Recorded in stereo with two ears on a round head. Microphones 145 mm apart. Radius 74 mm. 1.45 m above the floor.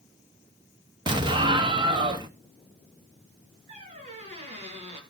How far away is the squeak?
About 3.5 m.